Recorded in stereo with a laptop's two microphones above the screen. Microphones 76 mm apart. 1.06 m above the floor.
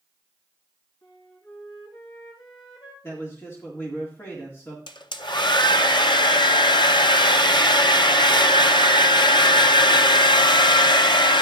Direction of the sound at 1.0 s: 70° left (ahead or behind).